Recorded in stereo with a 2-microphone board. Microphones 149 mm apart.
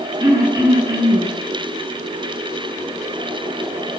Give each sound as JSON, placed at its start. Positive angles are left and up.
{"t": 0.2, "sound": "throat clearing", "side_deg": -25, "distance_m": 9.5}